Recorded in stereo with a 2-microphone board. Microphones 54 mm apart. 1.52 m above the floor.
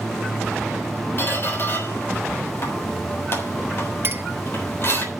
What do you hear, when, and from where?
1.2 s a squeak: 50° left (ahead or behind), 3.5 m
4.0 s a clink: 45° right (ahead or behind), 0.9 m